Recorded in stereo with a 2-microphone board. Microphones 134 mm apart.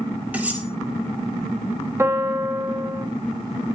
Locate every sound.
0.3 s cutlery clinking: 10° right (ahead or behind), 5 m
2.0 s a piano: 15° right (ahead or behind), 1.6 m